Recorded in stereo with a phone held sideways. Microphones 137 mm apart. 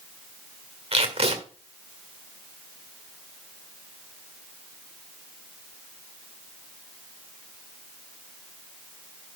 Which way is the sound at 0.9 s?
45° right (ahead or behind).